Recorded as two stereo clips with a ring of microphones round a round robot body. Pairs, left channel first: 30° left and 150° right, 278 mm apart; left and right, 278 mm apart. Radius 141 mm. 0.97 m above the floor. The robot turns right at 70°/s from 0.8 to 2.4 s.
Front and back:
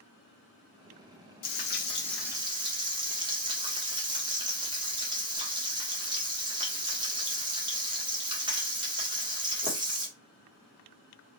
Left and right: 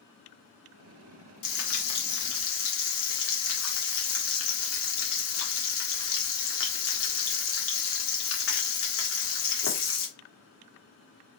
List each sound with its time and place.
1.4 s frying: 70° left, 1.6 m; by 10.1 s 135° left, 1.6 m